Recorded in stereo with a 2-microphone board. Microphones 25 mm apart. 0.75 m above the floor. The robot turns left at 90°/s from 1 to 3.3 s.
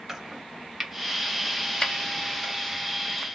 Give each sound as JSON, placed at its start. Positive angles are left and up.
{"t": 0.1, "sound": "chopping", "side_deg": -10, "distance_m": 0.6}